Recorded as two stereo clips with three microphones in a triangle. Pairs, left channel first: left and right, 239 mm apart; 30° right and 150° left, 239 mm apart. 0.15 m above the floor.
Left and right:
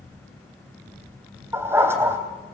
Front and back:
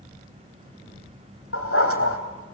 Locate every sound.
1.5 s a dog barking: 10° right, 2.5 m